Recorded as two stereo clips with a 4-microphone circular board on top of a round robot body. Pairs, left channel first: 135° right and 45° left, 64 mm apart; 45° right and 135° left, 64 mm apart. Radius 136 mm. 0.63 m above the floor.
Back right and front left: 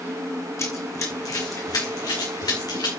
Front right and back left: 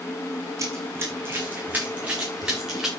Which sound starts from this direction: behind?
Running footsteps, at 0.6 s.